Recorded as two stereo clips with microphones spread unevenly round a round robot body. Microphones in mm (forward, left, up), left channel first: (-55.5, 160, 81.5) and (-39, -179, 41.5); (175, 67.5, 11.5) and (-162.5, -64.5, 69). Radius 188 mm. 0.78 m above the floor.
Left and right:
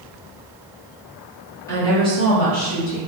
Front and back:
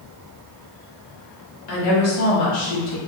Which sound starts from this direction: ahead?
A woman speaking, at 1.7 s.